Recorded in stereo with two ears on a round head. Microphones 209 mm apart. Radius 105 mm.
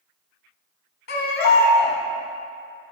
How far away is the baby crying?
About 1.3 m.